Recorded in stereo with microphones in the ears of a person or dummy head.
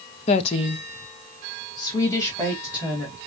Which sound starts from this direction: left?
A woman speaking, at 0.3 s.